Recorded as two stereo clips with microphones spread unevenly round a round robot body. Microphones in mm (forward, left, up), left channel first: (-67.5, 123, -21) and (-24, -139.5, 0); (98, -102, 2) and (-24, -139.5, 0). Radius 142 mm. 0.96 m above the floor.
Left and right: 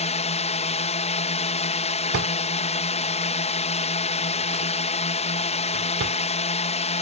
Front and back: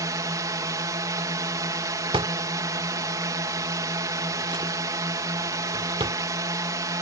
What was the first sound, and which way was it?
A drone, 145° left.